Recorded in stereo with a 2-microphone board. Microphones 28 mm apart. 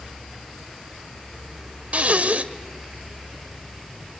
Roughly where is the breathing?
Right.